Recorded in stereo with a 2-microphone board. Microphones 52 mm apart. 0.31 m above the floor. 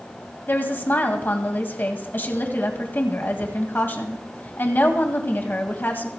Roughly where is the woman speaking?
Left.